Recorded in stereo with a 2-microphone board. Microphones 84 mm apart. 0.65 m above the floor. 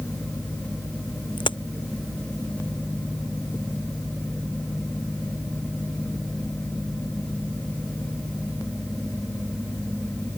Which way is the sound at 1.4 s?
70° left (ahead or behind).